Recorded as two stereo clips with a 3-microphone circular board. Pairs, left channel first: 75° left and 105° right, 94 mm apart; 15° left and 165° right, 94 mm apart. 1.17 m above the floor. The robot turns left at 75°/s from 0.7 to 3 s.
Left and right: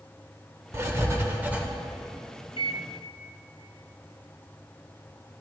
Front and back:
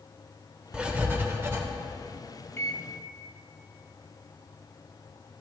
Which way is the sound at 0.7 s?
95° right.